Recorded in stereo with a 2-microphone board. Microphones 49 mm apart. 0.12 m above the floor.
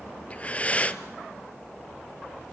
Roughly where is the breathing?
Left.